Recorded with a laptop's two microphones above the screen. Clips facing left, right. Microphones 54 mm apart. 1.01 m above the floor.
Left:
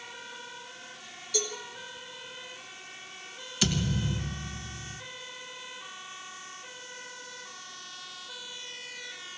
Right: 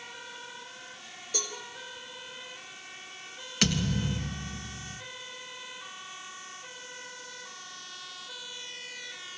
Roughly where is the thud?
Right.